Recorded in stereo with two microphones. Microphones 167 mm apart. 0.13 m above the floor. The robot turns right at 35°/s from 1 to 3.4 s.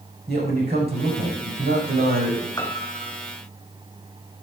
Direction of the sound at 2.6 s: 20° left (ahead or behind).